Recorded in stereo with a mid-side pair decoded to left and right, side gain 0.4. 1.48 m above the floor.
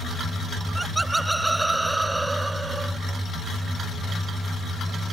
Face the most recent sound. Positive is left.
turn(degrees=-20)